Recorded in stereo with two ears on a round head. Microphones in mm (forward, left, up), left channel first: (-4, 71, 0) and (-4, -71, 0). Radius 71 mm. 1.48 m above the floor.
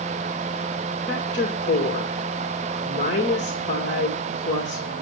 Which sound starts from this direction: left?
A woman speaking, at 1.1 s.